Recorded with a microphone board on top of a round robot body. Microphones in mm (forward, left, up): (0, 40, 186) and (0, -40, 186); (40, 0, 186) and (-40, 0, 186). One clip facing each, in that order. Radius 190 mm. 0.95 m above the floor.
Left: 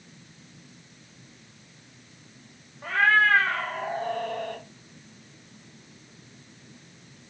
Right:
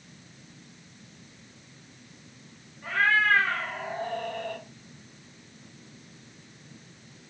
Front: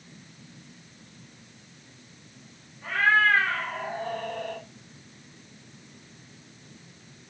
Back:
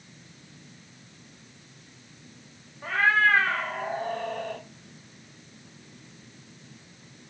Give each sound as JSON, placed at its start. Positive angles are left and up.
{"t": 2.8, "sound": "a cat meowing", "azimuth_deg": 115, "distance_m": 0.6}